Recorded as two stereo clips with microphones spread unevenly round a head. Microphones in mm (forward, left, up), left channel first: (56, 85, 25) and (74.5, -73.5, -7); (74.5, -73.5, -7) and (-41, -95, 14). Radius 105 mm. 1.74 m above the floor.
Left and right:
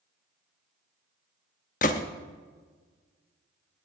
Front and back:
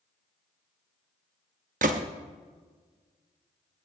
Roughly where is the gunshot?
Behind left.